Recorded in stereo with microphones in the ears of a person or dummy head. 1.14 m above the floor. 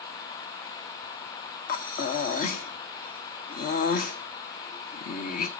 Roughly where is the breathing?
Left.